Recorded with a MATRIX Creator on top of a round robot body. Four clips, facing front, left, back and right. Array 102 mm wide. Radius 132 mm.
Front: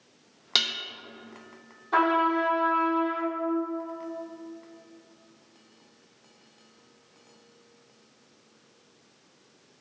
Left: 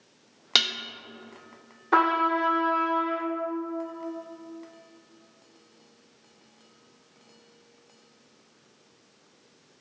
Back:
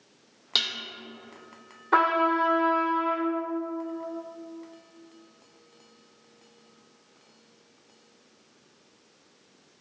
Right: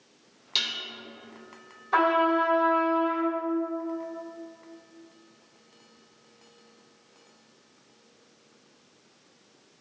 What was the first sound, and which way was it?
Dishes clattering, 80° left.